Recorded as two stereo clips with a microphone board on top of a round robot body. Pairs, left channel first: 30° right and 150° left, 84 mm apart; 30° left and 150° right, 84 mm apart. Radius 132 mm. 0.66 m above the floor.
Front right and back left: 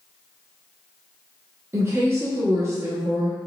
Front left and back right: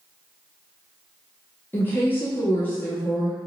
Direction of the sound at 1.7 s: 95° left.